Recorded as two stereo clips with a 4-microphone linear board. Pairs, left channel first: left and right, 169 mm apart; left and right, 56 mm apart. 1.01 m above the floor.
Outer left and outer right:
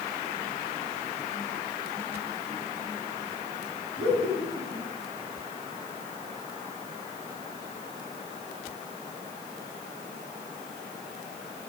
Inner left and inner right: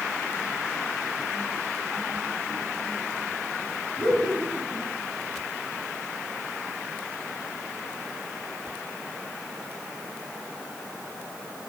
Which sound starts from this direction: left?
Laughter, at 4.0 s.